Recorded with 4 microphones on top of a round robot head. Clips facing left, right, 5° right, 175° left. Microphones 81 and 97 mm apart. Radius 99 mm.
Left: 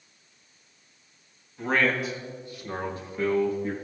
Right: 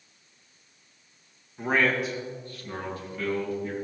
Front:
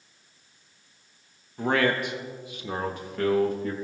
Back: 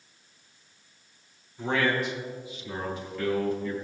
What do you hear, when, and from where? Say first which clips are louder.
1.6 s a man speaking: even, front 2 dB; 15° right, 0.8 m; by 3.7 s 35° left, 1.4 m